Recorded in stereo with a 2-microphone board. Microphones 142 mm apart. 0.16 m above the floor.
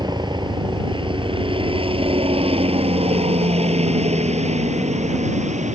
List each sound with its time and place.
0.0 s a helicopter: 30° right (ahead or behind); by 5.8 s 55° right (ahead or behind)